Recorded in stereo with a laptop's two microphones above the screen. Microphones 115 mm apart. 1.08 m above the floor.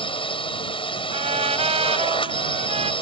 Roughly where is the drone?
Left.